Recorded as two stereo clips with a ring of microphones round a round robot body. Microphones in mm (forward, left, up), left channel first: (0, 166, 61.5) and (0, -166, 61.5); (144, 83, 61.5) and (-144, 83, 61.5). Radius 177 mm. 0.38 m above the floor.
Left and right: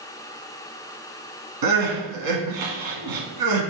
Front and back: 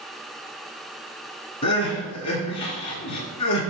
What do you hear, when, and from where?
1.6 s crying: 75° right, 2 m